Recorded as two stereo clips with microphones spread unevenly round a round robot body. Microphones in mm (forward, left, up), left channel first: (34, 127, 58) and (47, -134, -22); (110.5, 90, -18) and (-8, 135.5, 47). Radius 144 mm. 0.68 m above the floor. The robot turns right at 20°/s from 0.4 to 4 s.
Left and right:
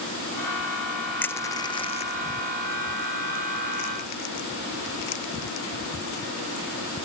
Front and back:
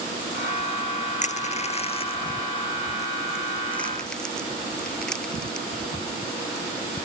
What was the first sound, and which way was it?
Crushing, 10° left.